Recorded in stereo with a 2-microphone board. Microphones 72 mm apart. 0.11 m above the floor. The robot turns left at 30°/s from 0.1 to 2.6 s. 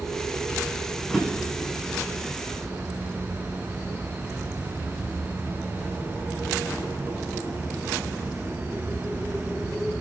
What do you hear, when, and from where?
1.1 s a drawer: 5° left (ahead or behind), 6.5 m; by 1.7 s 15° right (ahead or behind), 6.5 m